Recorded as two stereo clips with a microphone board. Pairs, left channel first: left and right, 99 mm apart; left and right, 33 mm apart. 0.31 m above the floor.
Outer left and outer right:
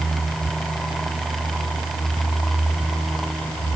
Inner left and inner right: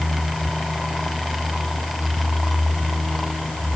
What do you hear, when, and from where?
Only background noise.